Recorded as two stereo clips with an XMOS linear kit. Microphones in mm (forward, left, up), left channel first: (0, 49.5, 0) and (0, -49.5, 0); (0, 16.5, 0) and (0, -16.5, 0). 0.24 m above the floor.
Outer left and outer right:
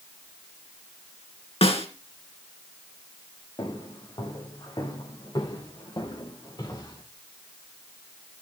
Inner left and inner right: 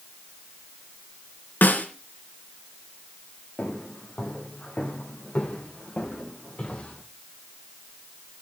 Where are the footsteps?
45° left (ahead or behind), 9.5 m; by 7.0 s 40° left (ahead or behind), 14.5 m.